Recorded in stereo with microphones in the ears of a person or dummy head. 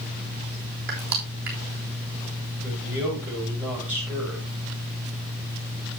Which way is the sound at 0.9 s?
55° right (ahead or behind).